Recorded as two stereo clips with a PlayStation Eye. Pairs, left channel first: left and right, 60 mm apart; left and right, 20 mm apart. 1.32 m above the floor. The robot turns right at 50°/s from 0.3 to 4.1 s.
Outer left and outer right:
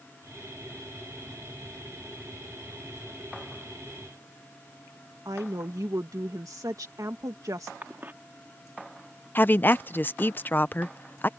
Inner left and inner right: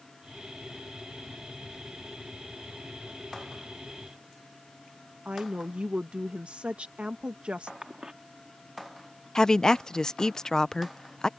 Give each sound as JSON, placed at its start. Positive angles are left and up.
{"t": 5.2, "sound": "a woman speaking", "side_deg": -80}
{"t": 7.8, "sound": "a cough", "side_deg": -35}
{"t": 9.3, "sound": "a woman speaking", "side_deg": 35}